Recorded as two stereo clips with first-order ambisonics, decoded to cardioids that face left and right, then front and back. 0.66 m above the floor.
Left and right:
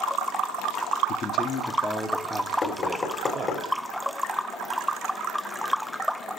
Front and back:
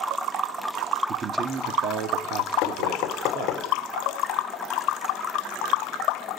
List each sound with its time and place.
1.1 s a man speaking: 120° left, 1.1 m; by 3.6 s 160° right, 2.5 m
2.6 s knocking: 25° left, 1.3 m